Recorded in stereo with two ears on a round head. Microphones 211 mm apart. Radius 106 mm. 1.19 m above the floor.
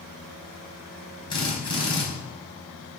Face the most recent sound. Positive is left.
turn(degrees=20)  # may be behind; listen again after turning